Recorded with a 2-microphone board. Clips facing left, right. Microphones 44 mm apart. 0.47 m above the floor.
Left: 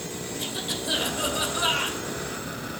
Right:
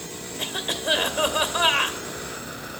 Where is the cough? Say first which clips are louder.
Right 5 dB; 55° right (ahead or behind), 2 m.